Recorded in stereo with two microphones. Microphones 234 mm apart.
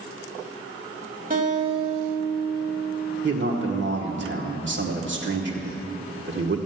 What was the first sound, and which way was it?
A guitar, 35° right (ahead or behind).